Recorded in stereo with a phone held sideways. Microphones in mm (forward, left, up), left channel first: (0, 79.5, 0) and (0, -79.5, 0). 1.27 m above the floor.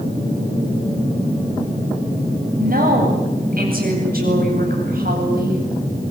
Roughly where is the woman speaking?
Right.